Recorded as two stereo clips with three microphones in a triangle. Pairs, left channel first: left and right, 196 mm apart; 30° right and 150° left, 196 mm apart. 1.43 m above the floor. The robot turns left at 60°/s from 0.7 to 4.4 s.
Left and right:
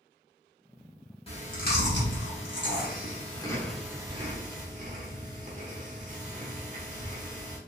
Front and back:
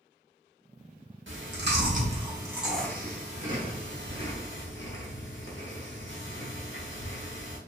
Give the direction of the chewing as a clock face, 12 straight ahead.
7 o'clock.